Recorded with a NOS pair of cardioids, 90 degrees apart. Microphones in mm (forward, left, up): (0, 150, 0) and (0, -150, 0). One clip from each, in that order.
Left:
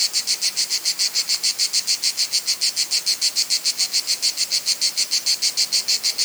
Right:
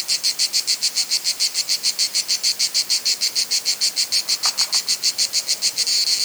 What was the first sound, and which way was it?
Only background noise.